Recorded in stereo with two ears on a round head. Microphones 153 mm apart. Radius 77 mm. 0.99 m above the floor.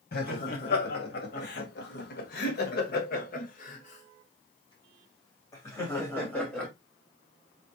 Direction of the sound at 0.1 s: 60° left (ahead or behind).